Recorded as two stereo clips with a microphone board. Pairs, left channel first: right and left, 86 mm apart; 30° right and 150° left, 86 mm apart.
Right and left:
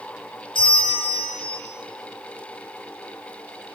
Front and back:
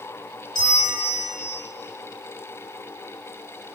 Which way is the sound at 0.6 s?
65° right.